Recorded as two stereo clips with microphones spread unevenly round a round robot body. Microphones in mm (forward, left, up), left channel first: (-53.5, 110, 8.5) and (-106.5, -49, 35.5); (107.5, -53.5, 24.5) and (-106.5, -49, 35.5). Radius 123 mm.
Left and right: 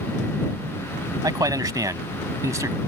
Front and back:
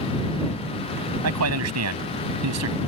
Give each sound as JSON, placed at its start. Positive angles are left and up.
{"t": 1.2, "sound": "a man speaking", "azimuth_deg": -175}